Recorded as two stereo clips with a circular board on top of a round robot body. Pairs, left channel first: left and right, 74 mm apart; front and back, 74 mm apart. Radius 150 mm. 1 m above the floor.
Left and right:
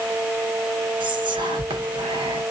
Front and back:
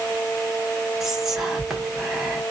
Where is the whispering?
95° right, 1.3 m.